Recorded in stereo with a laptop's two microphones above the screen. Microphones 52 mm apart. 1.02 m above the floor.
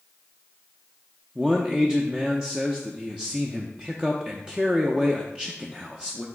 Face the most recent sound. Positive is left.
turn(degrees=-15)  # may be behind; listen again after turning